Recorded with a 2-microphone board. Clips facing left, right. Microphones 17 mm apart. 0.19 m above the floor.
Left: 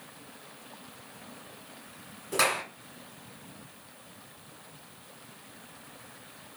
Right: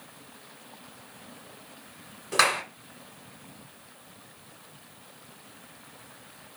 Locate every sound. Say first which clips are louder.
2.3 s a clap: right 4 dB; 30° right (ahead or behind), 1.0 m